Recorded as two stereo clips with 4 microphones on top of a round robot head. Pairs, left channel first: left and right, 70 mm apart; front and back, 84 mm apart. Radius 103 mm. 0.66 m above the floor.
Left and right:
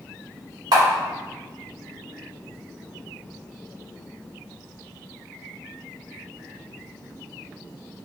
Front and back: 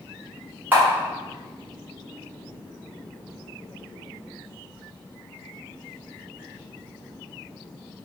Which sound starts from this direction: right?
A camera shutter, at 0.7 s.